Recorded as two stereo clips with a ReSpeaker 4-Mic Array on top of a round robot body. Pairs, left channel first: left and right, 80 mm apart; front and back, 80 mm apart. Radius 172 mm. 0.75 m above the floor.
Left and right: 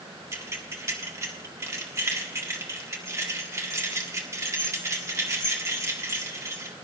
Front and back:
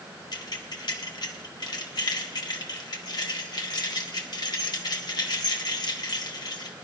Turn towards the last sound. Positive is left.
turn(degrees=-35)